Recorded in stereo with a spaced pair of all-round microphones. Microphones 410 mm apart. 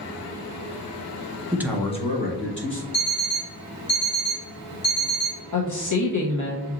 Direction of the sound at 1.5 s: 15° right (ahead or behind).